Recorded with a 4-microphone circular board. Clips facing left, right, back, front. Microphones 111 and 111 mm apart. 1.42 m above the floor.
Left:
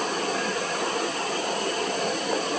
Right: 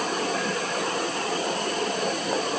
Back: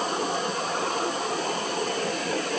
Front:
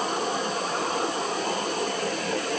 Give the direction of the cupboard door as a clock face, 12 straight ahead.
I don't hear a cupboard door.